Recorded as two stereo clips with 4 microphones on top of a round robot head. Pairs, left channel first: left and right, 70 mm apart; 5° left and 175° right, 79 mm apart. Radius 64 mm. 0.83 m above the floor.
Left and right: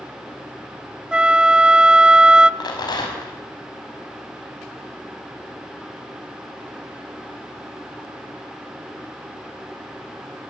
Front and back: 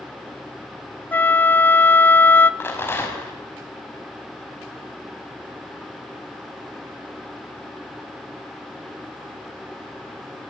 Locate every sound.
1.1 s a flute: 25° right, 0.6 m
2.6 s a rattle: 70° left, 4.5 m